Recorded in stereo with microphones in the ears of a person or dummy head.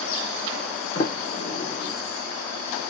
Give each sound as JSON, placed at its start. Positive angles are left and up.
{"t": 0.9, "sound": "a sliding door", "side_deg": 30, "distance_m": 2.5}